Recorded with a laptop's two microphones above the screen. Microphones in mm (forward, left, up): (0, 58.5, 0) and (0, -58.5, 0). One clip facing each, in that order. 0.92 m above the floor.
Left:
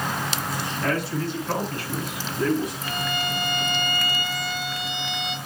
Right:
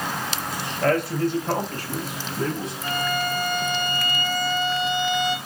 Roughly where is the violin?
Right.